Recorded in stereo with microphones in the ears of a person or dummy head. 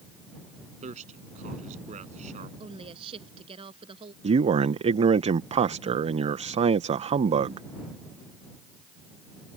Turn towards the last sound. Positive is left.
turn(degrees=-30)  # may be behind; listen again after turning